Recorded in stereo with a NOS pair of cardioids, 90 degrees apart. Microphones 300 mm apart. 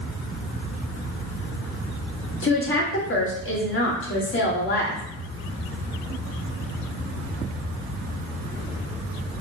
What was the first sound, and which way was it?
A woman speaking, 45° left.